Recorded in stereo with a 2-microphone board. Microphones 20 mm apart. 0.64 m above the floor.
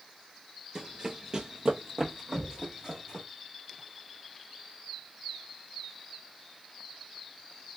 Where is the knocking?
30° left (ahead or behind), 0.6 m.